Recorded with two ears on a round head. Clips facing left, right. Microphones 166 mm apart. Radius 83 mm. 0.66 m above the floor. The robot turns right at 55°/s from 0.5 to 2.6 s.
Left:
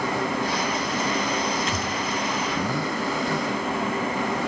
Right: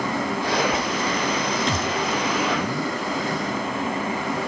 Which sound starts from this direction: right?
A thud, at 1.7 s.